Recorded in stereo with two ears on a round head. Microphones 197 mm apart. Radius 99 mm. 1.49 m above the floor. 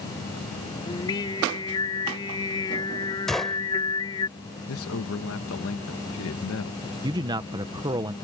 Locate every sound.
0.9 s singing: 20° left (ahead or behind)
3.3 s a gunshot: centre (ahead or behind)
4.7 s a man speaking: 65° left (ahead or behind)
7.0 s a man speaking: 20° right (ahead or behind)